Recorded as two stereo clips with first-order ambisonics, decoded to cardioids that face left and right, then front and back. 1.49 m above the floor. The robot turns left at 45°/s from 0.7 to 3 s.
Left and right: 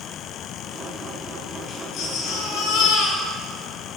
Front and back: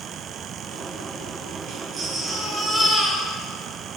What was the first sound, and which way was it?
A baby crying, 140° left.